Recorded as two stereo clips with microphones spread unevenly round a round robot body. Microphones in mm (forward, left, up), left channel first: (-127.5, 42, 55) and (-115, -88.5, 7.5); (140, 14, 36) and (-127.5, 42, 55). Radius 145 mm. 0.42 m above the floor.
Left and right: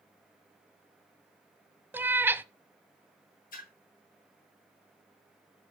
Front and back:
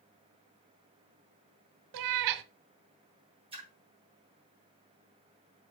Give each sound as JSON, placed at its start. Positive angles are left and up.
{"t": 1.9, "sound": "a cat meowing", "azimuth_deg": -170, "distance_m": 0.6}
{"t": 3.5, "sound": "a splash", "azimuth_deg": 105, "distance_m": 3.5}